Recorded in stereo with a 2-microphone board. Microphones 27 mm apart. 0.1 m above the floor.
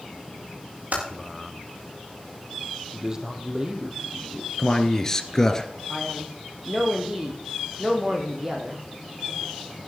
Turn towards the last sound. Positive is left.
turn(degrees=-25)  # may be behind; listen again after turning